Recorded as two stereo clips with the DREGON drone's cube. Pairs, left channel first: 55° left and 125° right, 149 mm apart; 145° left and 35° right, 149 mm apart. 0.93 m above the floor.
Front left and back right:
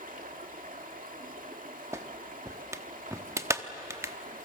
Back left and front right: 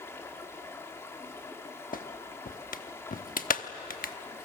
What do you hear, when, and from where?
0.0 s running water: 140° right, 2 m
1.9 s a clap: 165° left, 1.0 m